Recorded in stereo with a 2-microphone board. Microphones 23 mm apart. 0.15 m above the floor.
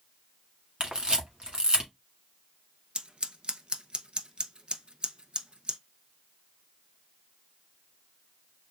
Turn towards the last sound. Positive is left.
turn(degrees=-40)  # may be behind; listen again after turning